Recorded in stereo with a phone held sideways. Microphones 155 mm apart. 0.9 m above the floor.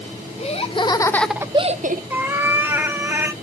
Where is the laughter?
40° left (ahead or behind), 1.1 m; by 2.0 s 60° right (ahead or behind), 0.6 m.